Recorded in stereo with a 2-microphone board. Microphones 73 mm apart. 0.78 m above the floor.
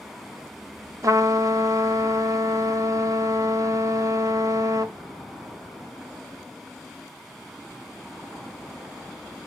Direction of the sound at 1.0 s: 45° right (ahead or behind).